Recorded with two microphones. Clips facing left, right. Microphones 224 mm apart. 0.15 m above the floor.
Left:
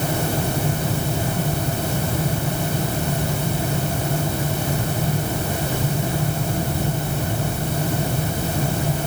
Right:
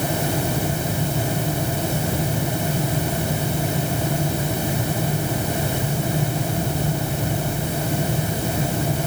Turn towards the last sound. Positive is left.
No sound to turn to.